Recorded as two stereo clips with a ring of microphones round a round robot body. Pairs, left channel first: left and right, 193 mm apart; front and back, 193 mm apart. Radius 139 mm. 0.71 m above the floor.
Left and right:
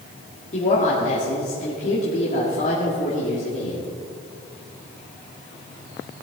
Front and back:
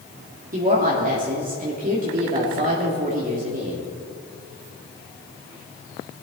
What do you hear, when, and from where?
0.5 s a woman speaking: 140° left, 1.9 m